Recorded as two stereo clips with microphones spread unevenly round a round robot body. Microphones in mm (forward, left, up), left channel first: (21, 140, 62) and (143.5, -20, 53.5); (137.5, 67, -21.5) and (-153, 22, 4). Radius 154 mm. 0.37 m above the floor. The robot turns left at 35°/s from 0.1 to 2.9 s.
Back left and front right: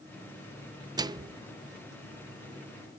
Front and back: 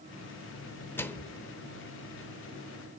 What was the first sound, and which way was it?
A microwave, 45° right.